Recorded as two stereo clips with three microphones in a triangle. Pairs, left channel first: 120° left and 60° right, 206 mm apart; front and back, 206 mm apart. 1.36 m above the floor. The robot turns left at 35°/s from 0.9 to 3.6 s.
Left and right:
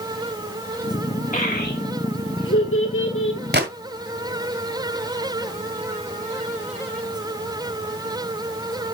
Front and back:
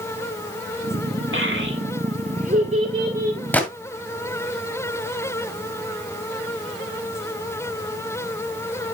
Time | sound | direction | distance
1.3 | a child speaking | 170° left | 2.5 m
3.5 | a gunshot | 80° right | 1.9 m